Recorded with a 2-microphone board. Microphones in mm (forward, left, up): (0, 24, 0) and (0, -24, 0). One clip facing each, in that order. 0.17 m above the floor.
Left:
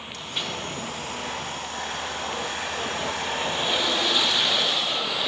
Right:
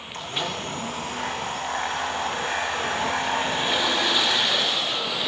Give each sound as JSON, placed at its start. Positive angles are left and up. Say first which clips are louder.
{"t": 0.1, "sound": "a blender", "louder": "right 3 dB", "side_deg": -35, "distance_m": 5.5}